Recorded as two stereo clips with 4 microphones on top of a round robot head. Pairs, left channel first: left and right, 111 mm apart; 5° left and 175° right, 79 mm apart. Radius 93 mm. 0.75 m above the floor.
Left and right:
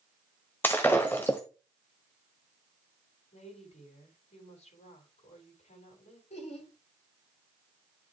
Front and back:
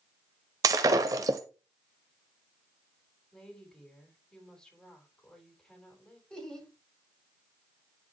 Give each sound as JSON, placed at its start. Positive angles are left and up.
{"t": 0.6, "sound": "breaking glass", "azimuth_deg": 165, "distance_m": 0.6}
{"t": 3.3, "sound": "a woman speaking", "azimuth_deg": 85, "distance_m": 7.5}
{"t": 6.3, "sound": "laughter", "azimuth_deg": 85, "distance_m": 7.5}